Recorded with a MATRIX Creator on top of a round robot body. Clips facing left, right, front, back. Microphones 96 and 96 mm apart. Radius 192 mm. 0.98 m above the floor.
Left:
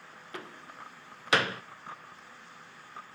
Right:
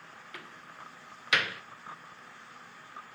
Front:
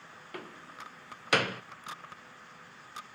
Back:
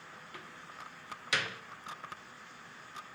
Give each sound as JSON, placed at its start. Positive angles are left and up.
{"t": 0.3, "sound": "a door slam", "azimuth_deg": 35, "distance_m": 0.5}